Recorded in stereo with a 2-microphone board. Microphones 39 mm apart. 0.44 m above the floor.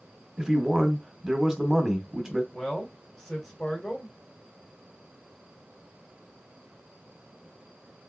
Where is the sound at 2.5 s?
10° left (ahead or behind), 2 m.